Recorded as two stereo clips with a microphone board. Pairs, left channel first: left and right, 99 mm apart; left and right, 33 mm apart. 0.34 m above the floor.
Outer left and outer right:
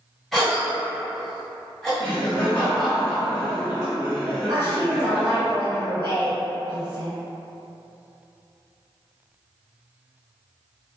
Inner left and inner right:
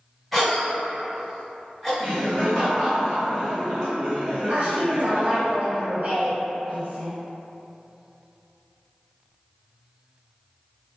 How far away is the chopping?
No chopping in this recording.